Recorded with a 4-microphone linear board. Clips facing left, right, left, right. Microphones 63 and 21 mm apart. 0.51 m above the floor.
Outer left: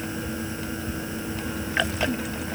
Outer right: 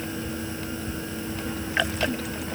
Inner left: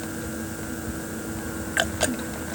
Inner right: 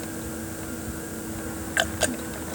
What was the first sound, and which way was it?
Only background noise.